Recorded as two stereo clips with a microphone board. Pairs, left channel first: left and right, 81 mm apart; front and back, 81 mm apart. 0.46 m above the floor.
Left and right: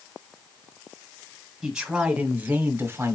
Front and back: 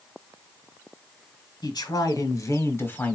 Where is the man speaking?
10° right, 1.6 m; by 3.1 s 60° right, 1.1 m.